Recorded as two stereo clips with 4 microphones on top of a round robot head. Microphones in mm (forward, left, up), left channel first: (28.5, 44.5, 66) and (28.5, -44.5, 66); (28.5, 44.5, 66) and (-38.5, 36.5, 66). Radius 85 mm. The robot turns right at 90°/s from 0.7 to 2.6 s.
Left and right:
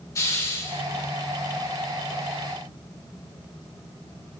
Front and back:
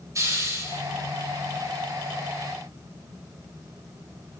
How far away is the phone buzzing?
I don't hear a phone buzzing.